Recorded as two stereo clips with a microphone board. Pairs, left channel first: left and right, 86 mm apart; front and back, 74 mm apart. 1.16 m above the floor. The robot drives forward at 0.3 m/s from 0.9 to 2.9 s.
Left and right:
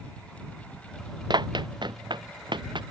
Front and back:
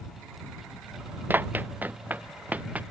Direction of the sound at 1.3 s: 115° right.